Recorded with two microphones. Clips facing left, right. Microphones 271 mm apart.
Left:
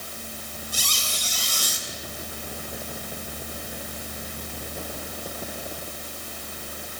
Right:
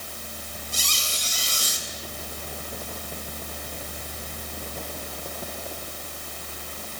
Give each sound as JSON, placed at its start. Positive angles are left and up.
{"t": 0.7, "sound": "a squeak", "side_deg": -25, "distance_m": 3.5}